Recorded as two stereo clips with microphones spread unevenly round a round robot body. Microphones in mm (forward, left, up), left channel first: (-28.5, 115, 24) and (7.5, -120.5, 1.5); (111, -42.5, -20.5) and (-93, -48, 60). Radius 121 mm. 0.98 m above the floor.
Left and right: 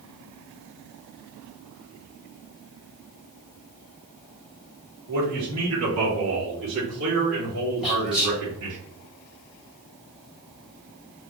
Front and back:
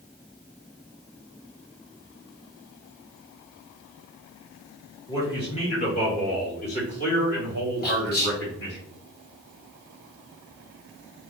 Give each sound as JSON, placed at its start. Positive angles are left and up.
{"t": 5.1, "sound": "a man speaking", "azimuth_deg": -70, "distance_m": 1.2}
{"t": 7.8, "sound": "whispering", "azimuth_deg": 5, "distance_m": 1.6}